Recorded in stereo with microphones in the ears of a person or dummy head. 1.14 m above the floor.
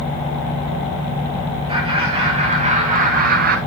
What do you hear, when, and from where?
1.7 s laughter: 30° right (ahead or behind), 3 m; by 3.6 s 40° right (ahead or behind), 0.8 m